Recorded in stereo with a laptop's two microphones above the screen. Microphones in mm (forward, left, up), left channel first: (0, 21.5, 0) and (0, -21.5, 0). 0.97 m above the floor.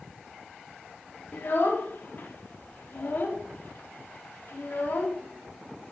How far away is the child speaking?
About 1.2 m.